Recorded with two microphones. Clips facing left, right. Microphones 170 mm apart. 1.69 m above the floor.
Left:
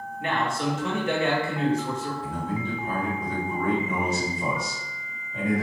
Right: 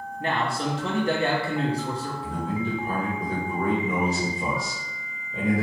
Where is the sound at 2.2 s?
75° right (ahead or behind), 1.8 m.